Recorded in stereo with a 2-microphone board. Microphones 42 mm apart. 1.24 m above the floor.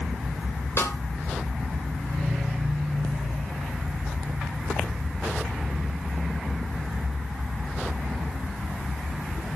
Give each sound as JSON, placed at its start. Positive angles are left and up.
{"t": 0.8, "sound": "a snare drum", "side_deg": 70, "distance_m": 3.5}